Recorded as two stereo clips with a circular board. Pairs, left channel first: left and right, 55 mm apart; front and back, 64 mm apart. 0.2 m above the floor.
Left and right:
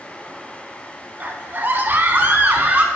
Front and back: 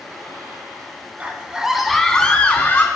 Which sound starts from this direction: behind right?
A scream, at 1.2 s.